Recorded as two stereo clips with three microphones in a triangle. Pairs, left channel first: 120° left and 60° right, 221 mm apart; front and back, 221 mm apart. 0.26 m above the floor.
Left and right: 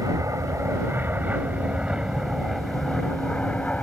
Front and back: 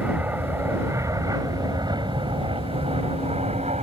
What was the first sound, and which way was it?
An aircraft, 110° right.